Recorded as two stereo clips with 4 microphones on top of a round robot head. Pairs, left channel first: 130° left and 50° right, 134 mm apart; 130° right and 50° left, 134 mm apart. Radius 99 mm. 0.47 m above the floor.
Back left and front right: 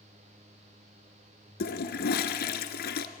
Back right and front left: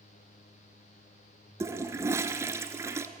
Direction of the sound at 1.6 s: 125° left.